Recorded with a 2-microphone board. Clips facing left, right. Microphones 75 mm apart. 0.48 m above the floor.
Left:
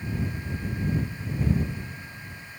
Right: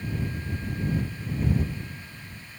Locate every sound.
Only background noise.